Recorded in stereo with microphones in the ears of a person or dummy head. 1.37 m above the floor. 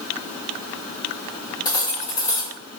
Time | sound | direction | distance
1.6 | cutlery clinking | 20° left (ahead or behind) | 0.6 m